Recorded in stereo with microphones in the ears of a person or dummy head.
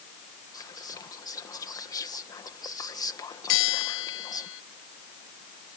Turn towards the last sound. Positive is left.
turn(degrees=70)  # may be behind; listen again after turning